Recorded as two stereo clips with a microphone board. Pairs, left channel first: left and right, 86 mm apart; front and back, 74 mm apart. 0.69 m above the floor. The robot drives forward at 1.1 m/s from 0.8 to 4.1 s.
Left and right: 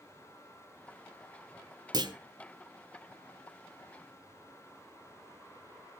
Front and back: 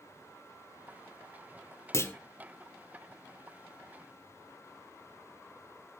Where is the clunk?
55° right, 1.2 m; by 2.1 s 60° right, 1.1 m.